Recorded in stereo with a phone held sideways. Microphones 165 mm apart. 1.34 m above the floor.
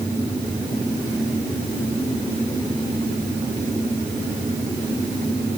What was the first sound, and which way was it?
Only background noise.